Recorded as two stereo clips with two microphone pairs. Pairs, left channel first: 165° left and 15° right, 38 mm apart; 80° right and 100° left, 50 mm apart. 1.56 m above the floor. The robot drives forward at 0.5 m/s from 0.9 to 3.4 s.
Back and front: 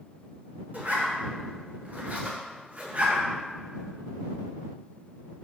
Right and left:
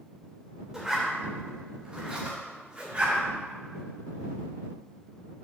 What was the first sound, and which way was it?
A zipper, 25° left.